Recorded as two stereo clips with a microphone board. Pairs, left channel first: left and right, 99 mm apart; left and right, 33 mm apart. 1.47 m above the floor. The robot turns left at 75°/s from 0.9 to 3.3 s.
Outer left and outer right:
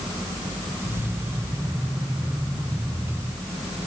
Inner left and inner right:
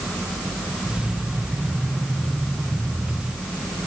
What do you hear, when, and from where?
Only background noise.